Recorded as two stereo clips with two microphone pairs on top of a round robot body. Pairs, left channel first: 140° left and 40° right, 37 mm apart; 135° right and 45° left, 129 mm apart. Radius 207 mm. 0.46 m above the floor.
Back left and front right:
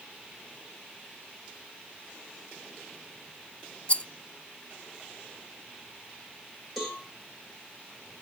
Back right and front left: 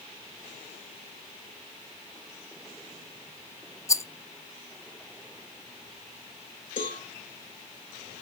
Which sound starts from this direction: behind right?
A cowbell, at 6.8 s.